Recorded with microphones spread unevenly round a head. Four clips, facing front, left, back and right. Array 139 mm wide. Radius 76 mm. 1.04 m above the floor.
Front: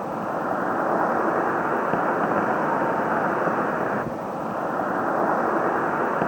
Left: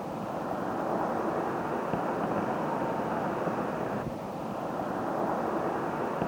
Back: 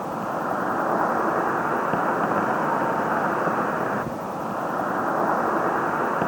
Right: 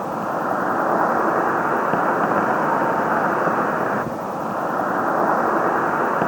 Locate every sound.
0.0 s an insect: 50° right